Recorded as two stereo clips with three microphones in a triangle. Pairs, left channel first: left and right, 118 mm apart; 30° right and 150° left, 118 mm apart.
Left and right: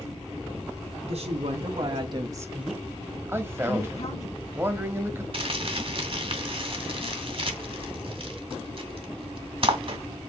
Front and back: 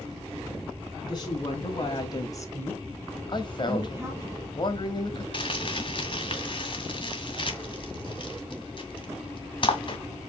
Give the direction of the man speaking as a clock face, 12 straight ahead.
1 o'clock.